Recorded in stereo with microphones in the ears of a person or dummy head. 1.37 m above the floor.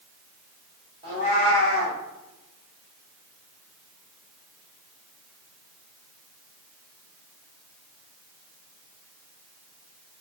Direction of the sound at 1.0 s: 20° right (ahead or behind).